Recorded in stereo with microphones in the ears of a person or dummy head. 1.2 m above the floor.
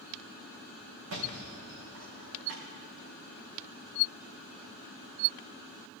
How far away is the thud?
About 4.5 m.